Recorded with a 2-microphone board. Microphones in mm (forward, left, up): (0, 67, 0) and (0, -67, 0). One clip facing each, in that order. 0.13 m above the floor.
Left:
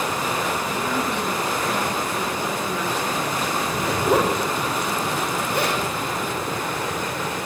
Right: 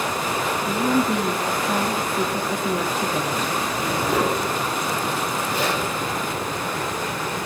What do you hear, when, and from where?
0.7 s a woman speaking: 35° right (ahead or behind), 3.5 m
3.6 s a zipper: 65° left (ahead or behind), 8 m